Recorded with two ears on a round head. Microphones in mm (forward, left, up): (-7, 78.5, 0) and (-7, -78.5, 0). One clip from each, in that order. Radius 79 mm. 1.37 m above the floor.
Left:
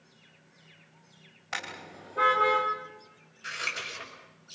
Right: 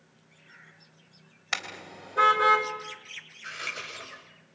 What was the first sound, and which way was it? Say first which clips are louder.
A car horn: right 4 dB; 55° right (ahead or behind).